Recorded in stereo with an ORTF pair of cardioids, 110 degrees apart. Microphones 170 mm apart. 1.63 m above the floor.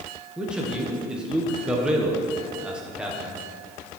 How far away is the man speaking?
About 1.4 m.